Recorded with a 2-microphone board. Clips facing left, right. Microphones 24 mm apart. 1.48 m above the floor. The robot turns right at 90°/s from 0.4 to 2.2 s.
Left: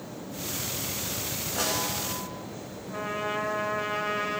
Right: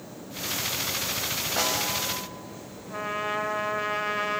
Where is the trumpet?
15° right (ahead or behind), 1.3 m.